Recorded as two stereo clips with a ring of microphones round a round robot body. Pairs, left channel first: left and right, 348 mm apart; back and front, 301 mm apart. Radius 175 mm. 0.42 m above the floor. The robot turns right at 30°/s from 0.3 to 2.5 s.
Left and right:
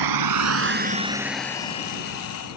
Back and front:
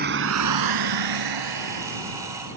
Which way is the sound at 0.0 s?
65° right.